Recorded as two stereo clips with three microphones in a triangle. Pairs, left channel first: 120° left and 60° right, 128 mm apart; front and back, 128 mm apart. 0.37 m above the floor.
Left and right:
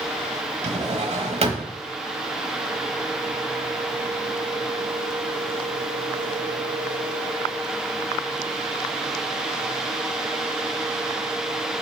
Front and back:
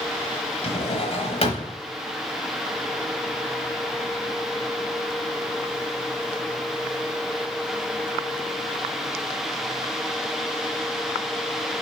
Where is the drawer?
35° right, 1.0 m.